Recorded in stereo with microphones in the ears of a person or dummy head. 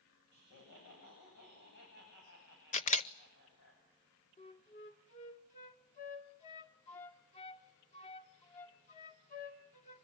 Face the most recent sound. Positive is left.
turn(degrees=40)  # may be behind; listen again after turning